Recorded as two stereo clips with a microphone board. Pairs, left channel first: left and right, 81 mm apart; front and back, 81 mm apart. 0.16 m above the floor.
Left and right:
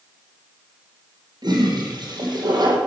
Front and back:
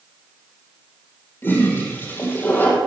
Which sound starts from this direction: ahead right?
A toilet flushing, at 1.4 s.